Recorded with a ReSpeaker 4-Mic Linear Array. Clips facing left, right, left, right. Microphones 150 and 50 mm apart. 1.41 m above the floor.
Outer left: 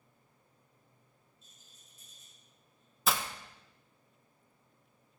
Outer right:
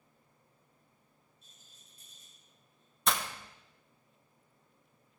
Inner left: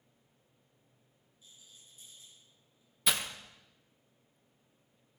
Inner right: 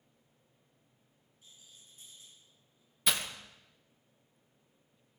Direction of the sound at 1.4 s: 60° right (ahead or behind).